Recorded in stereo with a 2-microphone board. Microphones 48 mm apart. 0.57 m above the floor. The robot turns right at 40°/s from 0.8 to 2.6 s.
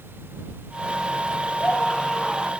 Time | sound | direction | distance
1.6 | a scream | 150° left | ?